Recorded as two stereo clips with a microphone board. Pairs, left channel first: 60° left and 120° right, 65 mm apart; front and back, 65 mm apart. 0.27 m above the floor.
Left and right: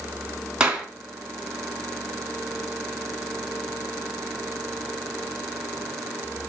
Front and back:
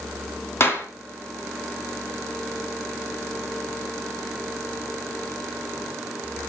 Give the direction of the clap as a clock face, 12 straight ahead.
2 o'clock.